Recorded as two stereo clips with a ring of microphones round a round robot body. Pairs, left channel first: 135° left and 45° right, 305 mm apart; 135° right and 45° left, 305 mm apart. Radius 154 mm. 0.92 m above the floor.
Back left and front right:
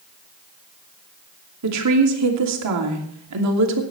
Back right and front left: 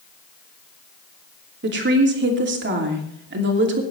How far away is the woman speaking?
About 2.5 m.